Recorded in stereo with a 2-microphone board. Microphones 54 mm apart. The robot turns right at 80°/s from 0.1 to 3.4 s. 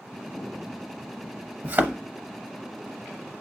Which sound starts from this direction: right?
A thud, at 1.6 s.